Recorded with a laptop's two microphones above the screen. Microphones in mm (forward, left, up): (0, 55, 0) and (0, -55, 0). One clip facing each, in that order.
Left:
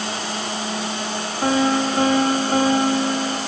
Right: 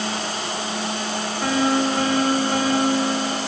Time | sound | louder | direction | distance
1.4 | a piano | left 2 dB | 40° left (ahead or behind) | 1.4 m